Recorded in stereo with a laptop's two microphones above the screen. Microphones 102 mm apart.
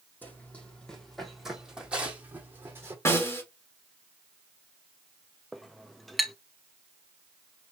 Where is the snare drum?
25° left (ahead or behind), 1.8 m.